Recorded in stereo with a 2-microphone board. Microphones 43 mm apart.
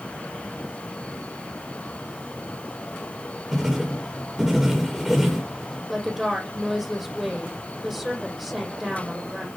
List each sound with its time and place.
3.5 s writing: 10° right (ahead or behind), 10 m
5.9 s a woman speaking: 10° right (ahead or behind), 9 m